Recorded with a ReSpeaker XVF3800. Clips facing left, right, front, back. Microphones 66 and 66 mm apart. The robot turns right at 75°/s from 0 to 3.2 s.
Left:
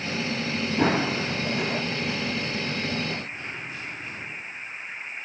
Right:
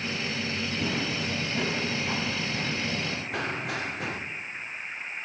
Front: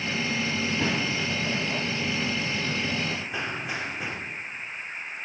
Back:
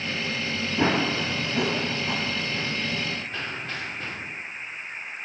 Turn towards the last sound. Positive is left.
turn(degrees=-80)